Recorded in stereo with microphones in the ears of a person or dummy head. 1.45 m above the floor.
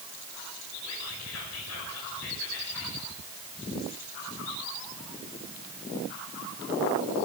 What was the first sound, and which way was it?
Whispering, 85° left.